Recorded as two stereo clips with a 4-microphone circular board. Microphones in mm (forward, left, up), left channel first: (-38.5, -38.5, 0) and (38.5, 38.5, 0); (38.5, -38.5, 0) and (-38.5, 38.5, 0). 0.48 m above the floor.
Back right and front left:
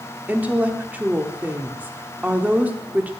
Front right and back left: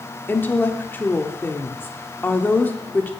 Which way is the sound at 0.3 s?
5° right.